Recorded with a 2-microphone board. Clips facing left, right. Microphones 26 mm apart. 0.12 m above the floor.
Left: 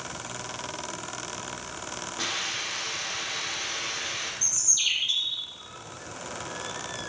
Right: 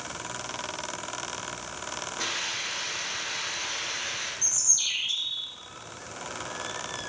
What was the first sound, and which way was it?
A hiss, 40° left (ahead or behind).